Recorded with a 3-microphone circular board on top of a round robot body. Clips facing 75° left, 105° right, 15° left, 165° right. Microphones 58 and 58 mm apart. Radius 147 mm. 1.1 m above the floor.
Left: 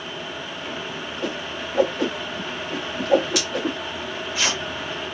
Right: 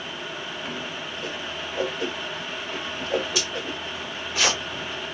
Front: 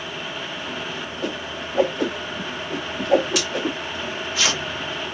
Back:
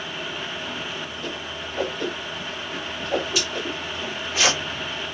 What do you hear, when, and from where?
1.2 s a whoosh: 45° left, 0.7 m
3.9 s tearing paper: 145° right, 1.5 m